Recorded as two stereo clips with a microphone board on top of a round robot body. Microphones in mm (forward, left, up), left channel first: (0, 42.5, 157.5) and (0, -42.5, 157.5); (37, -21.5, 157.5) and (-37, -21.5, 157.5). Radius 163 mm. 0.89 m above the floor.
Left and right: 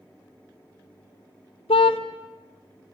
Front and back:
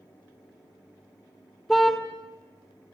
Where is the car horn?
90° left, 2 m.